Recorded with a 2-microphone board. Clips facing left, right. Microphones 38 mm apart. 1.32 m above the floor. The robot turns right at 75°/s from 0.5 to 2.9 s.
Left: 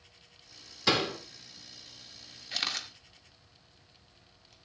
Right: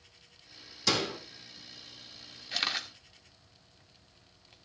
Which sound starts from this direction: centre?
A camera shutter, at 2.5 s.